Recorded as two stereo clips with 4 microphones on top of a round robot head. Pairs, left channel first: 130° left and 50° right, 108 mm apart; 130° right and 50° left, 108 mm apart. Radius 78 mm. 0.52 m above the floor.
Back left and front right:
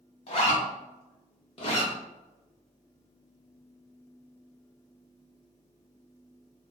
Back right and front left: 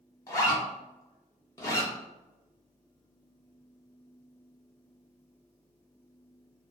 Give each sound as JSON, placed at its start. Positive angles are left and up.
{"t": 0.3, "sound": "a zipper", "azimuth_deg": 170, "distance_m": 1.0}